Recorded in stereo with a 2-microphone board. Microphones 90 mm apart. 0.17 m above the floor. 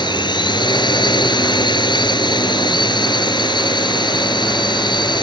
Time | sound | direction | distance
0.0 | a drone | 60° left (ahead or behind) | ?